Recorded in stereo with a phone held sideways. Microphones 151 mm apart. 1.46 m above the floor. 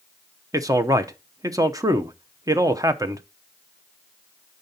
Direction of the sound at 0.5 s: 20° right (ahead or behind).